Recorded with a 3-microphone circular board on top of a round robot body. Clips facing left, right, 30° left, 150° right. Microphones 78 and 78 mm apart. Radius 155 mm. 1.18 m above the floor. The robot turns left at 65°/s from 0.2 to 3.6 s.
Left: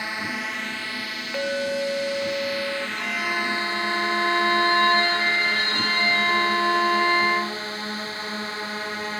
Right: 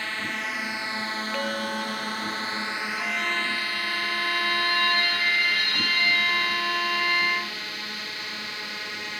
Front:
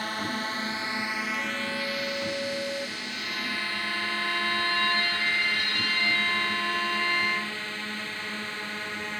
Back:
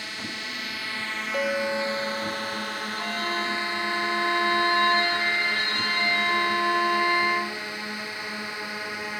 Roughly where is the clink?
Behind.